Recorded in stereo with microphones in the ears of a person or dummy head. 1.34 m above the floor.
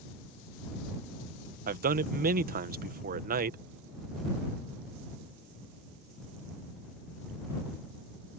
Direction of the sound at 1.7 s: 45° right (ahead or behind).